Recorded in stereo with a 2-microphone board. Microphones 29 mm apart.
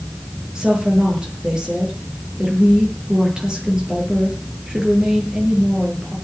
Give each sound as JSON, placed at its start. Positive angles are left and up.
{"t": 0.6, "sound": "a woman speaking", "side_deg": -25, "distance_m": 8.0}